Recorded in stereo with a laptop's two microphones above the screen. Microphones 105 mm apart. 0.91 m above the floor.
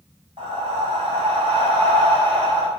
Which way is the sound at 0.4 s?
55° right (ahead or behind).